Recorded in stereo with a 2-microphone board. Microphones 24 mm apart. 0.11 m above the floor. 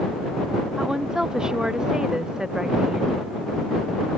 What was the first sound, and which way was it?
A woman speaking, 25° right (ahead or behind).